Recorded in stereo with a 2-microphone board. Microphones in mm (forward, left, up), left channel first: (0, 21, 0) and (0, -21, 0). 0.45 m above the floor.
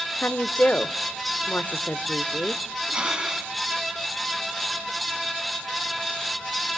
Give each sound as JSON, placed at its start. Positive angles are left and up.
{"t": 0.2, "sound": "a woman speaking", "side_deg": 45, "distance_m": 1.0}
{"t": 2.9, "sound": "breathing", "side_deg": -20, "distance_m": 2.5}